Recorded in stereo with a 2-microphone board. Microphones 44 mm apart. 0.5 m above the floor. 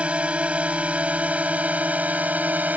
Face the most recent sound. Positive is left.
turn(degrees=-40)  # may be behind; listen again after turning